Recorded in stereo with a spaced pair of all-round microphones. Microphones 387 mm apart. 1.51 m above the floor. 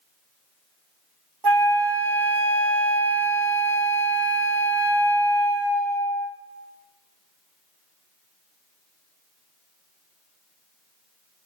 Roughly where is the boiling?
No boiling in this recording.